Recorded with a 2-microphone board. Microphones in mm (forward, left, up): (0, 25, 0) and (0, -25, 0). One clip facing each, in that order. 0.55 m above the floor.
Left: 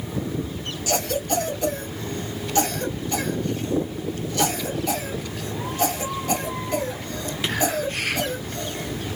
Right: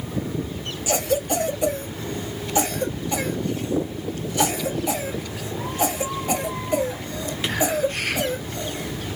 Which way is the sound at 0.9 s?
15° right (ahead or behind).